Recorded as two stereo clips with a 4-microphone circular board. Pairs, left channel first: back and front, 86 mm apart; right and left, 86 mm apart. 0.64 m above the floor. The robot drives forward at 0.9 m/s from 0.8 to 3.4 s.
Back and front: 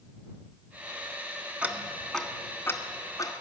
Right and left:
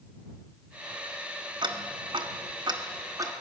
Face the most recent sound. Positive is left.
turn(degrees=140)